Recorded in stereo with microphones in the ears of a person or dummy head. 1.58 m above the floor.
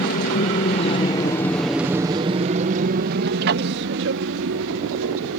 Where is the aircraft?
50° left (ahead or behind); by 5.4 s 70° right (ahead or behind).